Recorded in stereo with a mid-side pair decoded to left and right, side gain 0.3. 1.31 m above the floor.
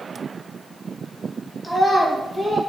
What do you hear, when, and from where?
1.6 s a child speaking: 5° left, 1.3 m